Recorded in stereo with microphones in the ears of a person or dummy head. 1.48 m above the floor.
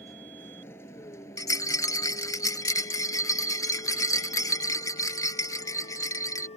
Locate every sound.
0.0 s a vehicle: 5° left (ahead or behind); by 6.6 s 35° left (ahead or behind)
1.4 s a rattle: 15° left (ahead or behind)